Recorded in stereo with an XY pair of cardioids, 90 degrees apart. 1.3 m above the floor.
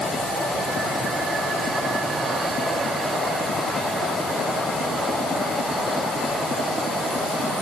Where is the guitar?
I don't hear a guitar.